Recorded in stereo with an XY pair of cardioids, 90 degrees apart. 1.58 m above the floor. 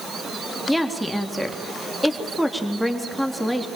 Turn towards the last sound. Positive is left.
turn(degrees=0)